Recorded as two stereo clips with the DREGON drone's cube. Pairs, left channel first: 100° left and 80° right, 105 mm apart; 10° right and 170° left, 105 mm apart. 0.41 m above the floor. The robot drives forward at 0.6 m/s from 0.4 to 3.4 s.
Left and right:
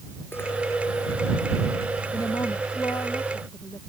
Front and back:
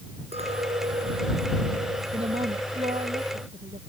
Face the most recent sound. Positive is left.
turn(degrees=160)